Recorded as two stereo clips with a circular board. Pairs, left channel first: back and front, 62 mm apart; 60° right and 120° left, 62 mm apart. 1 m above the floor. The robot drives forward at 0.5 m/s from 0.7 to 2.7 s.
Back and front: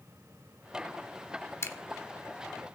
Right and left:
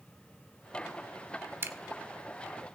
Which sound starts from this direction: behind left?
A camera shutter, at 1.6 s.